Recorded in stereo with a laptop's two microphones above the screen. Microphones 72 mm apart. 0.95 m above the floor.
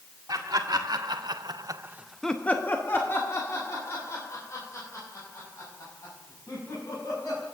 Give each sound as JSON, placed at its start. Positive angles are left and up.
{"t": 0.3, "sound": "laughter", "side_deg": -70, "distance_m": 2.0}